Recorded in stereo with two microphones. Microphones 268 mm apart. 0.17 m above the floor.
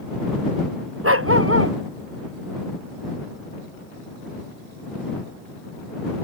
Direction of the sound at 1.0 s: 55° right (ahead or behind).